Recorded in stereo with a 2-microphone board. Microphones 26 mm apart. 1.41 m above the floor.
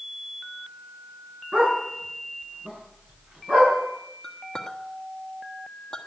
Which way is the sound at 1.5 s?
50° right (ahead or behind).